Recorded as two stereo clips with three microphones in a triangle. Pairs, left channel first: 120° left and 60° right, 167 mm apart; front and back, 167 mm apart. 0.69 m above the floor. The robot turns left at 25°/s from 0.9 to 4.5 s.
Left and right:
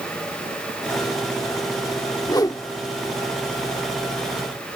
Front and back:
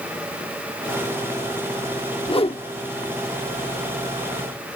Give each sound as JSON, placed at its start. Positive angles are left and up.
{"t": 2.3, "sound": "a whoosh", "azimuth_deg": 60}